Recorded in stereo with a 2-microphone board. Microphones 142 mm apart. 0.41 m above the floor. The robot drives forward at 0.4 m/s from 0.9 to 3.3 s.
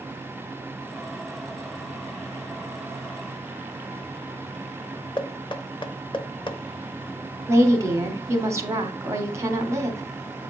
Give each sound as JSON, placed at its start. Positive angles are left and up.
{"t": 5.2, "sound": "knocking", "side_deg": 35, "distance_m": 0.8}
{"t": 7.5, "sound": "a woman speaking", "side_deg": -20, "distance_m": 1.2}